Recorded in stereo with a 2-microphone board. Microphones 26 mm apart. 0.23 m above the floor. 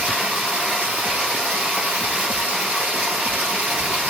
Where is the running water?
75° right (ahead or behind), 2.5 m.